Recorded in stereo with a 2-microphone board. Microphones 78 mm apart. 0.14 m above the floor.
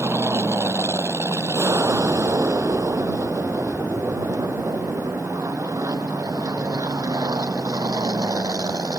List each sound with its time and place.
0.0 s an aircraft: 35° right (ahead or behind); by 9.0 s 50° right (ahead or behind)